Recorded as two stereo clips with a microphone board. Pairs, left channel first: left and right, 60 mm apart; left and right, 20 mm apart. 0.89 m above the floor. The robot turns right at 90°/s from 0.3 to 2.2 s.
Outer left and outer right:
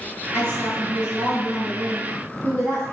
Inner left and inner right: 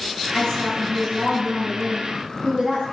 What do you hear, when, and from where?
0.3 s a woman speaking: 65° left, 1.4 m; by 2.8 s 130° right, 1.4 m